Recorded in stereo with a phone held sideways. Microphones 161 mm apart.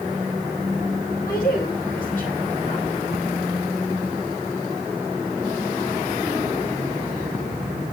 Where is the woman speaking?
65° left (ahead or behind), 5 m; by 2.9 s 45° left (ahead or behind), 4 m.